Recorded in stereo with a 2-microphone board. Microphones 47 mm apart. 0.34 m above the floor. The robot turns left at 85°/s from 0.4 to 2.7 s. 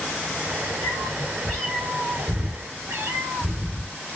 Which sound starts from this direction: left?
A cat meowing, at 0.8 s.